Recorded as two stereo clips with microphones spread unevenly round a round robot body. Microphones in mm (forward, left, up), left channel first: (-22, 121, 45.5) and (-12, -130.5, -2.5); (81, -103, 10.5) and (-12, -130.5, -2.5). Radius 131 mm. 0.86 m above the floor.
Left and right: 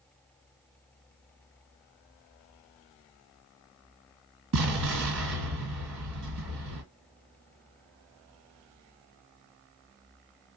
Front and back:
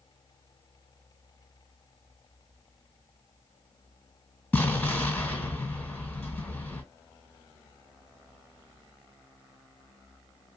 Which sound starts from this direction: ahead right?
An explosion, at 4.5 s.